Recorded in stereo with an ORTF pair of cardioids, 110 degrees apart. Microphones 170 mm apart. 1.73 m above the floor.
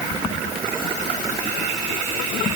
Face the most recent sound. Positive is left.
No sound to turn to.